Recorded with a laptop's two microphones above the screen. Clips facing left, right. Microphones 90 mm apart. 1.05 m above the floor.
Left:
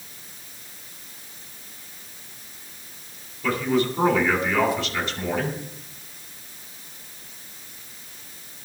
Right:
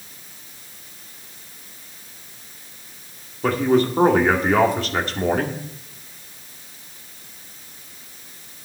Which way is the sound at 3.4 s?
50° right (ahead or behind).